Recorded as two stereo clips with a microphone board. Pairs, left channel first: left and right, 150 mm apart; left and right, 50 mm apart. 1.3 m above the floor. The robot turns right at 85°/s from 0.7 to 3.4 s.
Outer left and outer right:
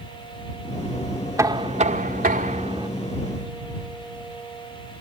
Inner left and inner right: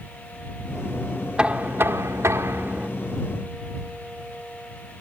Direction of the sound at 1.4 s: 160° right.